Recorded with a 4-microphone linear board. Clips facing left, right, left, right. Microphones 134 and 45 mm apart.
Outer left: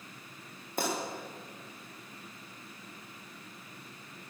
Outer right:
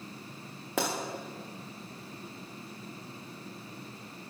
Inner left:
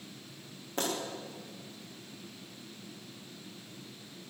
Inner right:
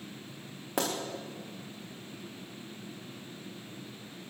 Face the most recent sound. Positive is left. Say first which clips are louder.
# outer right 2 dB, inner right 2 dB
turn(degrees=-90)